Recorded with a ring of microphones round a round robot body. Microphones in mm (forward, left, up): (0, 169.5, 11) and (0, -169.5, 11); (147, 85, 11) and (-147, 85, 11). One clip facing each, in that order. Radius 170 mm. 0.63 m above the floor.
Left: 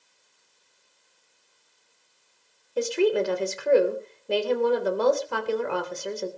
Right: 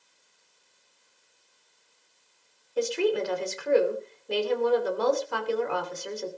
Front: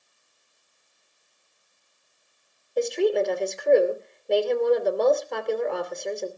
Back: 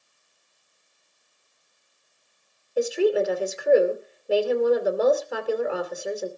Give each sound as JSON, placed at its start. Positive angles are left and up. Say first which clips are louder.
{"t": 2.8, "sound": "a woman speaking", "louder": "left 3 dB, back 1 dB", "azimuth_deg": 95, "distance_m": 3.0}